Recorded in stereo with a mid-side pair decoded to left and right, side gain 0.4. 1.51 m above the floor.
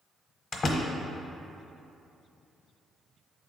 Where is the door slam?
45° left, 1.0 m.